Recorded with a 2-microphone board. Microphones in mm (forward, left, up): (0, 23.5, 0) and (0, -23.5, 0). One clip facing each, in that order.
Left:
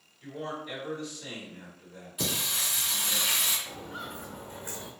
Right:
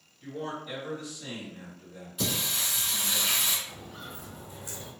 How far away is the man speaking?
About 1.7 m.